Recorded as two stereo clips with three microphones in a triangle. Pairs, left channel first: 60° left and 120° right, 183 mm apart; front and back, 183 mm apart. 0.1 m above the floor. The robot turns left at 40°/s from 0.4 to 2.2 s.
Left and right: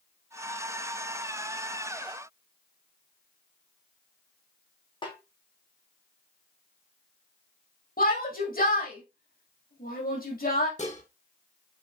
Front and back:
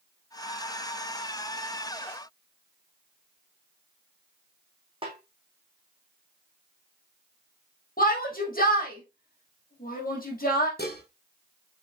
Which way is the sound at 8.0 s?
30° left.